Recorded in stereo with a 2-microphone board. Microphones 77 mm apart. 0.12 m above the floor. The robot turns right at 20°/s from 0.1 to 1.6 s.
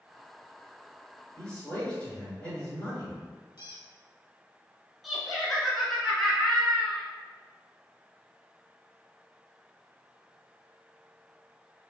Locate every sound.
1.4 s a man speaking: 15° left (ahead or behind), 1.6 m; by 3.2 s 20° left (ahead or behind), 1.6 m
3.6 s a squeak: 60° left (ahead or behind), 0.6 m
5.0 s laughter: centre (ahead or behind), 1.1 m